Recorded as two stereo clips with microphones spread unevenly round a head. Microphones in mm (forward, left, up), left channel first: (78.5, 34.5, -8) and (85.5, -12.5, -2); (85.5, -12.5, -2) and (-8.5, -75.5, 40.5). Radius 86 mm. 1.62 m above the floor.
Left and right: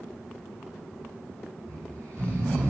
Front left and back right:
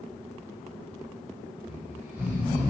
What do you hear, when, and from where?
1.7 s snoring: 75° right, 7 m